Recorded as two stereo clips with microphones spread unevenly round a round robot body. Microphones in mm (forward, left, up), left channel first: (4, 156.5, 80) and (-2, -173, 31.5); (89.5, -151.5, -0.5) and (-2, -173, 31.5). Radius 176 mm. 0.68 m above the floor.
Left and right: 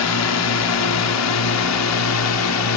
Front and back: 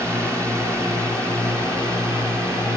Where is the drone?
115° left.